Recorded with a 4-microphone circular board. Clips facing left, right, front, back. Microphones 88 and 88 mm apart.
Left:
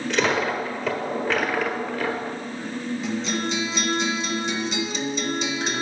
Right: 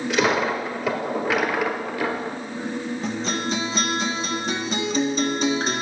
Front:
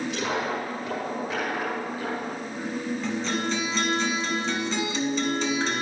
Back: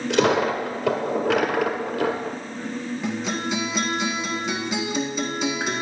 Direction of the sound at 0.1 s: 170° right.